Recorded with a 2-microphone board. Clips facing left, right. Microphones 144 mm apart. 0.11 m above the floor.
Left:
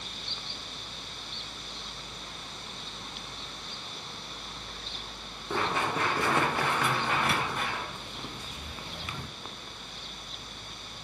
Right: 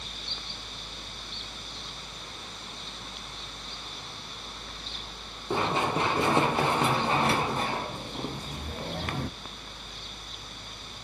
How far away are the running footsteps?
About 2.5 m.